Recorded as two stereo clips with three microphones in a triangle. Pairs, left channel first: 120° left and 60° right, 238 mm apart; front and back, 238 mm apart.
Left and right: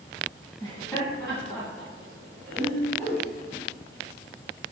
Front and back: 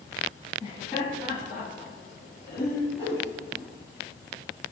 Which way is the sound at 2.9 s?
50° left.